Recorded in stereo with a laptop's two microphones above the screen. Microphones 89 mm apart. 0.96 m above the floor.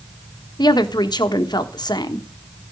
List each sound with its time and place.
0.6 s a woman speaking: 55° left (ahead or behind), 1.3 m